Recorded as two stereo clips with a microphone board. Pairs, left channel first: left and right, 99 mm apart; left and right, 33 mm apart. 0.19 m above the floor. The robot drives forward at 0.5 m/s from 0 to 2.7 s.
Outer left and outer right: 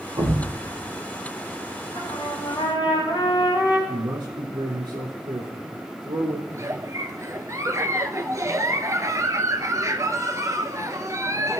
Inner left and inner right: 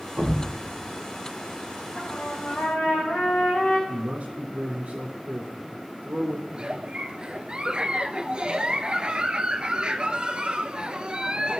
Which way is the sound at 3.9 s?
50° right (ahead or behind).